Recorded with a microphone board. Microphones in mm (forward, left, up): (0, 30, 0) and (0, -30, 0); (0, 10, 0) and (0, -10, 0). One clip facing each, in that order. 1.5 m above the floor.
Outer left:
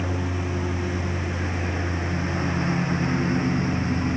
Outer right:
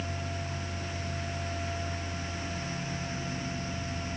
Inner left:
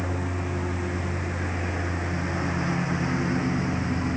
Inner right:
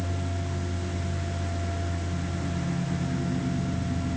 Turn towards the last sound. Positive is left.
turn(degrees=55)  # may be behind; listen again after turning